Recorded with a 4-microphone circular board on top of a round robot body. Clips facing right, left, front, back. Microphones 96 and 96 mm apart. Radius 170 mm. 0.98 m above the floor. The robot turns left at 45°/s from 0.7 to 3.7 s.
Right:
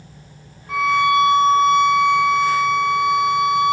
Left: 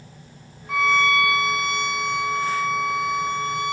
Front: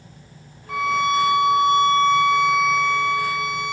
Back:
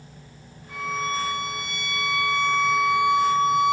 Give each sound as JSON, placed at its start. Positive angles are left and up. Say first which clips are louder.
{"t": 0.7, "sound": "a violin", "louder": "right 4 dB, front 8 dB", "azimuth_deg": 0, "distance_m": 0.7}